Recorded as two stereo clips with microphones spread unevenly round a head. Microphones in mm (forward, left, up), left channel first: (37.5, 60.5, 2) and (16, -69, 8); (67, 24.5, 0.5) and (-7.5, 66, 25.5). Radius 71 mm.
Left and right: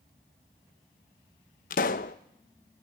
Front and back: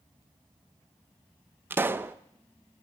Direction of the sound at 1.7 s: 100° left.